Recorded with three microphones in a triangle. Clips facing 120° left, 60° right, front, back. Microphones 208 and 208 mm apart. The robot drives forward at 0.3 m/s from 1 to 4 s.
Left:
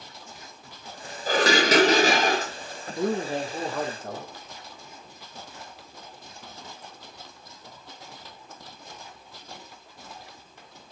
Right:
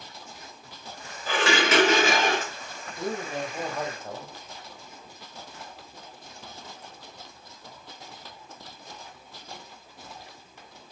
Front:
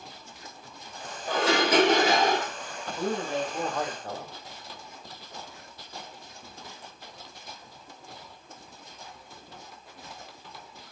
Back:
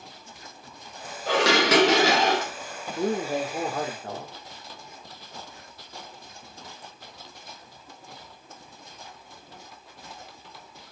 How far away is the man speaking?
About 1.1 m.